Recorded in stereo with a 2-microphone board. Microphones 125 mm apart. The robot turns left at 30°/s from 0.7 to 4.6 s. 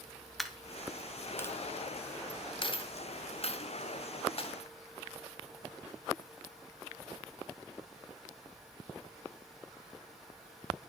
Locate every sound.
0.4 s a dropped coin: centre (ahead or behind), 0.8 m; by 4.5 s 45° left (ahead or behind), 0.8 m